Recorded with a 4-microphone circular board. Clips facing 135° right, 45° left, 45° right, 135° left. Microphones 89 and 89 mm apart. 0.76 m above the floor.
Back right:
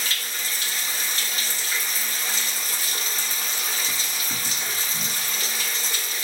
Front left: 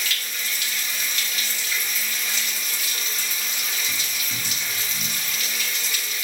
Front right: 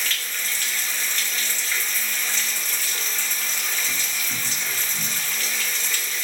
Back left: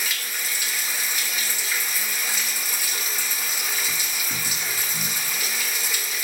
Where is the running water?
155° right, 0.8 m.